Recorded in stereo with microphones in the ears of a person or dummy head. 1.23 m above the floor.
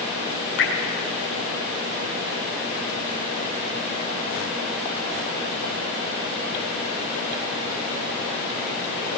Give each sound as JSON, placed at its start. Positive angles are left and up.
{"t": 0.6, "sound": "dripping", "side_deg": 65, "distance_m": 5.5}